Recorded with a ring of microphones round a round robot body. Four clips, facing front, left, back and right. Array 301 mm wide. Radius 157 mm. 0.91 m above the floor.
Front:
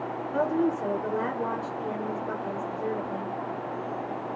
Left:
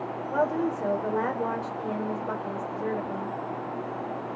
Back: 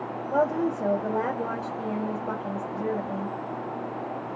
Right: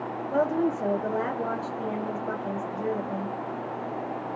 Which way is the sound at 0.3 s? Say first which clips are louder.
Right 1 dB, back 1 dB; 150° right.